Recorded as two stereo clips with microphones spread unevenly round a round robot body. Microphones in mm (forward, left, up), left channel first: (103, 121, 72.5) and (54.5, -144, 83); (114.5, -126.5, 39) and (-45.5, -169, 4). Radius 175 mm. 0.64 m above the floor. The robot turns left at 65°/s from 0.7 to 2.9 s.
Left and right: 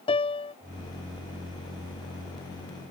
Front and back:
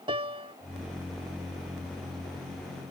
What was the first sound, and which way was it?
A piano, 145° left.